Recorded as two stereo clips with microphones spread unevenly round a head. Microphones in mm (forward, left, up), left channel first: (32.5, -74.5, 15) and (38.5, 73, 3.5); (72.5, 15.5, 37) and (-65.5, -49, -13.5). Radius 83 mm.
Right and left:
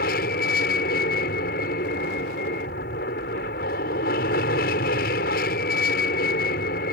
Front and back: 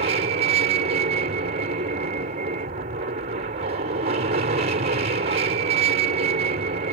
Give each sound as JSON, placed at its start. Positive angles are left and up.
{"t": 0.0, "sound": "an aircraft", "azimuth_deg": -120}